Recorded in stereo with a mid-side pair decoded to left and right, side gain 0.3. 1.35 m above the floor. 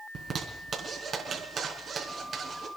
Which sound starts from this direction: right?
A zipper, at 0.1 s.